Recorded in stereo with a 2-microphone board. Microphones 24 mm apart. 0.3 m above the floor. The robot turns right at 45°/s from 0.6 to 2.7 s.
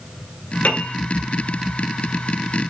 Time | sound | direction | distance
0.6 | a piano | 80° left | 2.5 m